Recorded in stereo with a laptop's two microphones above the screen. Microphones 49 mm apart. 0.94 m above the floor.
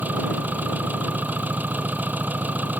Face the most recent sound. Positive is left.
turn(degrees=-35)  # may be behind; listen again after turning